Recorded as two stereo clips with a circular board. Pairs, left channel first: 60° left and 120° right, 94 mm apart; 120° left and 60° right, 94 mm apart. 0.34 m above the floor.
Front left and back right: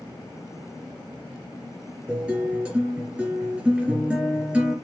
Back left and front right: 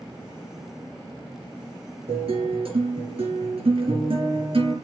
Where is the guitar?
40° right, 5 m.